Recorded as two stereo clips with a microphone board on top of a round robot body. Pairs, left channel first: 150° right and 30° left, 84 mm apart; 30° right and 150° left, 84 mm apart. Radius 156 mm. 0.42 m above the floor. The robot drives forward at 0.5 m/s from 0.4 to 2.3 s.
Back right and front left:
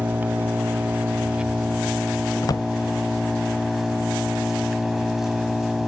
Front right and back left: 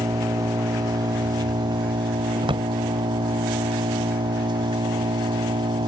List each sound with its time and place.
0.0 s an engine running: 100° left; by 5.9 s 115° left
2.4 s a drawer: 165° left